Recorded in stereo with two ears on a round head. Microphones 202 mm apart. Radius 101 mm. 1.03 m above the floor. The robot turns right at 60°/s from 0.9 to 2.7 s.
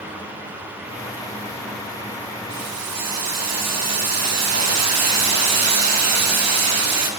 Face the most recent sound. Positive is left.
turn(degrees=-80)